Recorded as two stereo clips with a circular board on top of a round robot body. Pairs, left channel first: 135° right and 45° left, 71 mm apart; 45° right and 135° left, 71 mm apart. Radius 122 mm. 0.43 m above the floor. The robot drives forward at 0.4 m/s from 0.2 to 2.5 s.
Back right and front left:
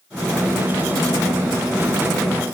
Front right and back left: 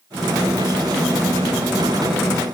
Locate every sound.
Only background noise.